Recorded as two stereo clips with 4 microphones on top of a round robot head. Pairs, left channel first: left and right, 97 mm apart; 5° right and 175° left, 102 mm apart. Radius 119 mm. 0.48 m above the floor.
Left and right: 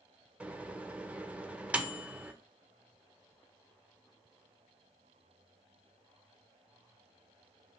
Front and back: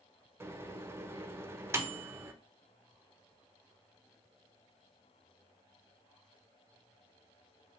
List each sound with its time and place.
0.4 s a microwave: 155° right, 0.5 m